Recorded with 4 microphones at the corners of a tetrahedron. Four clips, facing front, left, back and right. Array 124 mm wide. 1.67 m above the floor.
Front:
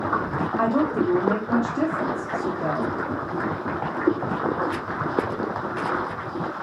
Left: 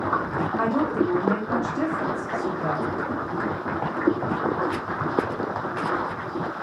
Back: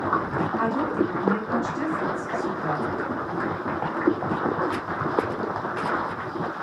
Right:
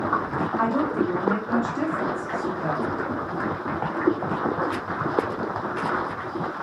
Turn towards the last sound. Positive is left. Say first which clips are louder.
# left 1 dB, front 4 dB
turn(degrees=30)